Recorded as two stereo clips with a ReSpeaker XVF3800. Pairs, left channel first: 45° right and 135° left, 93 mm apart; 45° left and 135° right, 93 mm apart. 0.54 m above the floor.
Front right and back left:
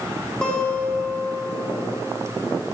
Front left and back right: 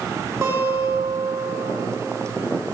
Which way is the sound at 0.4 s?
120° right.